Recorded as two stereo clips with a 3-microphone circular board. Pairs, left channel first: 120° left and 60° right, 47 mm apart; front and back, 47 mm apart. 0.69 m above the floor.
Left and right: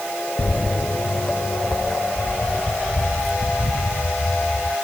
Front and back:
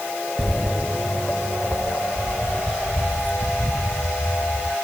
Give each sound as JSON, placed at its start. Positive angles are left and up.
{"t": 0.4, "sound": "footsteps", "azimuth_deg": 110}